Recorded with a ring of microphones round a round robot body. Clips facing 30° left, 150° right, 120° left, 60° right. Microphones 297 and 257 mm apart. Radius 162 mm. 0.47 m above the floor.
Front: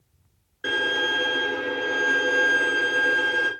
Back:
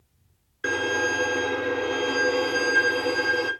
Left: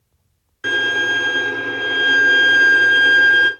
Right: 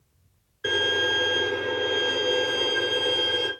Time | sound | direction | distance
0.6 | a violin | 135° left | 1.2 m